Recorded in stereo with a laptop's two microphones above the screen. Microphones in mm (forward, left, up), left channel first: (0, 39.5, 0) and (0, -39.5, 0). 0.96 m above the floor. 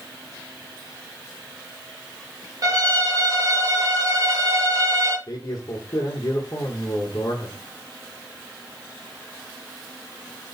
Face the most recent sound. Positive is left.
turn(degrees=45)  # may be behind; listen again after turning